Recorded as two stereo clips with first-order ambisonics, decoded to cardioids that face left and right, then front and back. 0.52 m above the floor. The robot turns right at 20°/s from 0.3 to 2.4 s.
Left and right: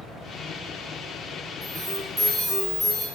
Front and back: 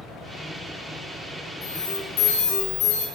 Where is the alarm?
25° right, 2.5 m; by 3.0 s 5° right, 2.5 m.